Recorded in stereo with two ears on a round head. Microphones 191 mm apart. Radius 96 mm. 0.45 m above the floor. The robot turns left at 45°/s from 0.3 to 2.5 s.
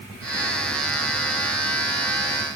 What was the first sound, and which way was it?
Only background noise.